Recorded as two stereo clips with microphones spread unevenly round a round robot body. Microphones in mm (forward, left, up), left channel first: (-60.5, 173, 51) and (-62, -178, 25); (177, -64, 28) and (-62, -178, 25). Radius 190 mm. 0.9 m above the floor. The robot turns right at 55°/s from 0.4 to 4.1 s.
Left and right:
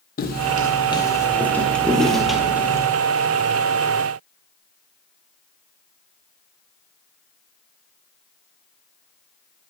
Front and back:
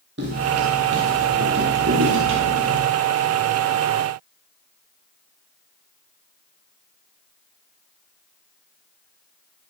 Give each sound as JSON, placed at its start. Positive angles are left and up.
{"t": 0.2, "sound": "footsteps", "azimuth_deg": 150, "distance_m": 1.6}